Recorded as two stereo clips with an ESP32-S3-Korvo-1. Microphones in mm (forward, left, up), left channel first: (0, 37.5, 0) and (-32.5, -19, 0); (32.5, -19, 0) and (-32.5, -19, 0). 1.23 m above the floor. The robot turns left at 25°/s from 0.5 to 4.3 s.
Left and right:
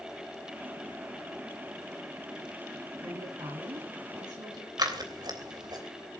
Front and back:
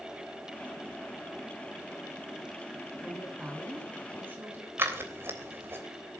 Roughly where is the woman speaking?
Right.